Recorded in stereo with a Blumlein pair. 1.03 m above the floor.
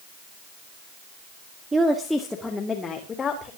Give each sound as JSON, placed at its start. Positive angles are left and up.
{"t": 1.7, "sound": "a woman speaking", "azimuth_deg": -10, "distance_m": 1.7}